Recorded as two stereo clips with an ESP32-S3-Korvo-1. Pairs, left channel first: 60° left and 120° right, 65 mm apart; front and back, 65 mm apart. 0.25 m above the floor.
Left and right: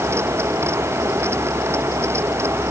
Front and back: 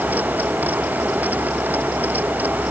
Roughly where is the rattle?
I don't hear a rattle.